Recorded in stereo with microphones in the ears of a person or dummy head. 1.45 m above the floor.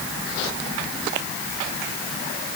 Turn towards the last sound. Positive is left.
No sound to turn to.